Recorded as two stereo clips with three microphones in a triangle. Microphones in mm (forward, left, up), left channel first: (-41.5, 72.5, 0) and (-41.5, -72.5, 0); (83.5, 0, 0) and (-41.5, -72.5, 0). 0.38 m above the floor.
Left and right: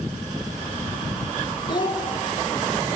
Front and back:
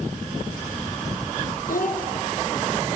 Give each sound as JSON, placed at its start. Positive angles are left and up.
{"t": 1.7, "sound": "a child speaking", "azimuth_deg": 35, "distance_m": 3.5}